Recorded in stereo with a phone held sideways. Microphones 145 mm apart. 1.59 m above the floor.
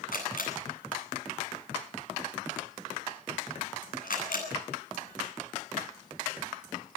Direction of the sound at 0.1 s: 75° left (ahead or behind).